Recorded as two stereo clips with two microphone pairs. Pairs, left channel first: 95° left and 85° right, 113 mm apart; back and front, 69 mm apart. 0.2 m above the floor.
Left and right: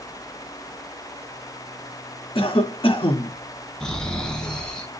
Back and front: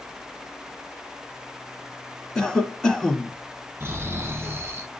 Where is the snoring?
15° left, 1.6 m.